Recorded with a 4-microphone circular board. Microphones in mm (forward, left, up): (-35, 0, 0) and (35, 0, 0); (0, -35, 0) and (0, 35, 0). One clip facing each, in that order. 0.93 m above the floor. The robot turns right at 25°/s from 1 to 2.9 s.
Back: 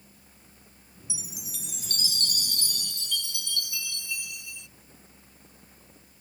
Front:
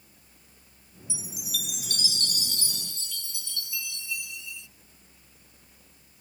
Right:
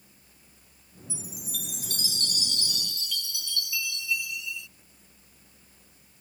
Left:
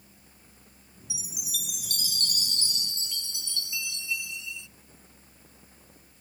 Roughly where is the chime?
Left.